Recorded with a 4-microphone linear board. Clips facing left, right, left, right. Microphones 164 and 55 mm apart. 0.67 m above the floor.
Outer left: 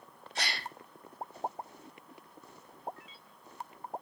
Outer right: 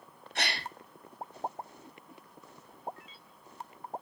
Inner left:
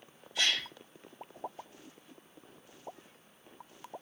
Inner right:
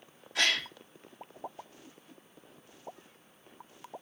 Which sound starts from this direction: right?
A gasp, at 0.3 s.